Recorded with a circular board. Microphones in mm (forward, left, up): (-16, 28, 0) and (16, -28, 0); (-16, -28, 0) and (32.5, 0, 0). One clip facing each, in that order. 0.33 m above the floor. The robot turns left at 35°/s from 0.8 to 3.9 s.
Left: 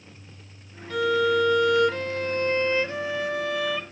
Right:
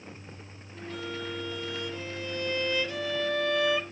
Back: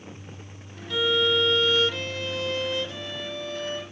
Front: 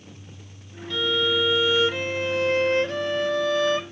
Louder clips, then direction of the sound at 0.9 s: Left 15 dB, back 1 dB; 130° left.